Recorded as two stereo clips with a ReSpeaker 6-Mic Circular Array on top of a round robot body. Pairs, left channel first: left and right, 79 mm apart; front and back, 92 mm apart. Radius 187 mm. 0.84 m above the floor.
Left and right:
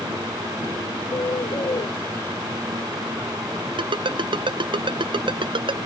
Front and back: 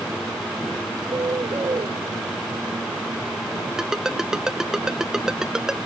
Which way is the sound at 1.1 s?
130° left.